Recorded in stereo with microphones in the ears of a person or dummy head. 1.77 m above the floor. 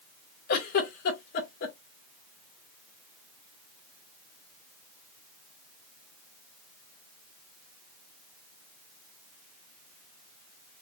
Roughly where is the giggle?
Left.